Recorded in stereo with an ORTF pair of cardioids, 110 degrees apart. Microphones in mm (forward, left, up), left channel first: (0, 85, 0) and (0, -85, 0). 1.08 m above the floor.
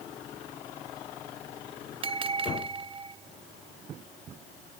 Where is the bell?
30° right, 0.9 m.